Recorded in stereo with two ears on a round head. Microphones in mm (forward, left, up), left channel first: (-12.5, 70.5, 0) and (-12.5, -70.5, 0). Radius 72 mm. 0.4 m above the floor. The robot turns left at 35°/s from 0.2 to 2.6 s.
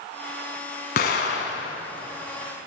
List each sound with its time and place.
1.0 s an explosion: 65° left (ahead or behind), 1.2 m; by 1.8 s 85° left, 1.2 m